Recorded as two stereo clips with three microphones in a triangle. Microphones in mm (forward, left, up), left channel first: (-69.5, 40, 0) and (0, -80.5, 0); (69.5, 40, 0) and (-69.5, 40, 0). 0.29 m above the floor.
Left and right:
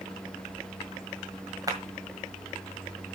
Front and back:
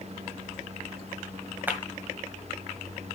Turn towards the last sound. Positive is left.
turn(degrees=-110)